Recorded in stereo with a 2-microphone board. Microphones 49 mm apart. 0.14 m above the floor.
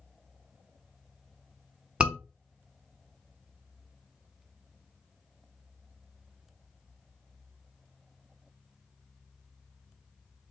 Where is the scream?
20° right (ahead or behind), 1.0 m.